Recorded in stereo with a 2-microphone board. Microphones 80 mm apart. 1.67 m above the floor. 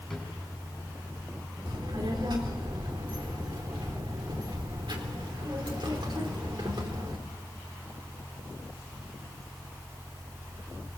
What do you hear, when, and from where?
0.1 s a drawer: 5° left (ahead or behind), 7.5 m
1.6 s a child speaking: 70° right (ahead or behind), 3.5 m